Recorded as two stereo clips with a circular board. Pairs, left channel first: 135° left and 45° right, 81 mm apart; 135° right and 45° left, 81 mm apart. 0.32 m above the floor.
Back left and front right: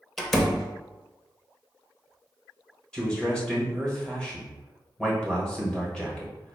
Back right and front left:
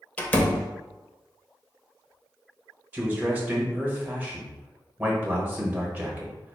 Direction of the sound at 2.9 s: 70° left.